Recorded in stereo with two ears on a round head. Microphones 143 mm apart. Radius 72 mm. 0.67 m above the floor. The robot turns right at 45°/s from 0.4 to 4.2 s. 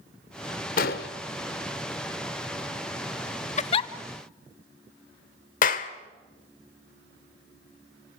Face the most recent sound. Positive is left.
turn(degrees=55)  # may be behind; listen again after turning